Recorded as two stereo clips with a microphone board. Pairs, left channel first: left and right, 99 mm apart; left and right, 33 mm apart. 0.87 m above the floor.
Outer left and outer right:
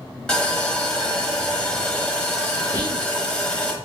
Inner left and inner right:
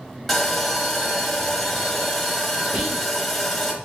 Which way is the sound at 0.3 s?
10° left (ahead or behind).